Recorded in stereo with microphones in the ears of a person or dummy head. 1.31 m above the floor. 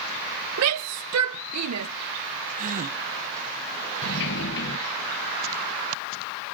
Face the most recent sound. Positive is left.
turn(degrees=65)  # may be behind; listen again after turning